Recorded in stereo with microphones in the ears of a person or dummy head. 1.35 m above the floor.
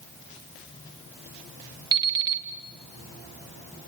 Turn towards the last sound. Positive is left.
turn(degrees=-15)  # may be behind; listen again after turning